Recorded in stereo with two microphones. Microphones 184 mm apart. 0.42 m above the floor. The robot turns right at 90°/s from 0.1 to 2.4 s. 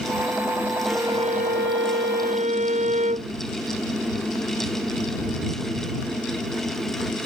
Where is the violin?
175° right; by 3.3 s 40° right.